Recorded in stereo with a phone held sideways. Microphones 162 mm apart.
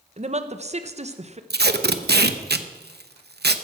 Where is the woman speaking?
40° right (ahead or behind), 0.9 m.